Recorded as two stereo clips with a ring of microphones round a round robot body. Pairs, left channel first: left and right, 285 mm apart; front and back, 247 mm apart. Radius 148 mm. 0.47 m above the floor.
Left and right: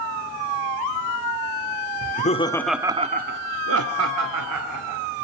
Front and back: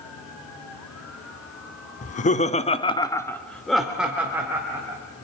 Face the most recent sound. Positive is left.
turn(degrees=-100)